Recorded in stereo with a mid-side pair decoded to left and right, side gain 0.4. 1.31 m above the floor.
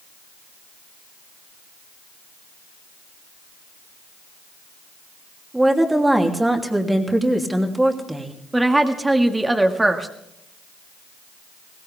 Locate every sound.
5.5 s a woman speaking: 10° right, 3 m
8.5 s a woman speaking: 15° right, 1.9 m